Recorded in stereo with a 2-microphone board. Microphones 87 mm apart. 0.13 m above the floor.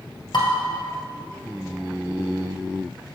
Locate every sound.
0.3 s dishes clattering: 60° left (ahead or behind), 1.9 m